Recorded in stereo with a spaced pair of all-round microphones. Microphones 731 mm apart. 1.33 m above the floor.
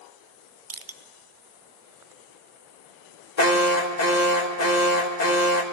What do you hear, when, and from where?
0.7 s crushing: 35° right (ahead or behind), 0.5 m
3.4 s an alarm: 65° left (ahead or behind), 1.4 m